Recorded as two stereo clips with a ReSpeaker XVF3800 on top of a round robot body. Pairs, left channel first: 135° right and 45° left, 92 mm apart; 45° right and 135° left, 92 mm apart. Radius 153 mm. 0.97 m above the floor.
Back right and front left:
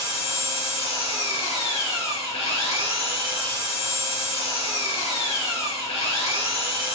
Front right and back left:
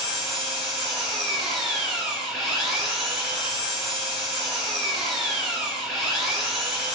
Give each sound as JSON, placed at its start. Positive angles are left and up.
{"t": 0.0, "sound": "an engine running", "azimuth_deg": -130, "distance_m": 5.0}